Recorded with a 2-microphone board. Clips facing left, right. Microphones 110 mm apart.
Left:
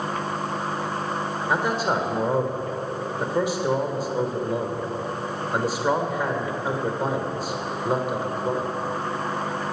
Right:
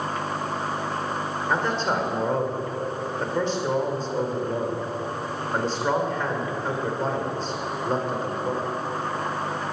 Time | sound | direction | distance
1.5 | a man speaking | 10° left (ahead or behind) | 2.0 m